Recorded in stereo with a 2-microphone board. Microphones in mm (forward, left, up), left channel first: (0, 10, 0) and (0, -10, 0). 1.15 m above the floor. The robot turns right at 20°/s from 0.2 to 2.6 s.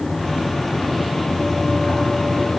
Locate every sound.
Only background noise.